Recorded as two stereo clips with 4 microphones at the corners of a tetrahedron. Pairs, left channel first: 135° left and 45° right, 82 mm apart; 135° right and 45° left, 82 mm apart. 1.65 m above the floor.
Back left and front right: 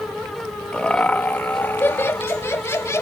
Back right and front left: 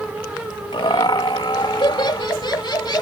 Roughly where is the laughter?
Behind right.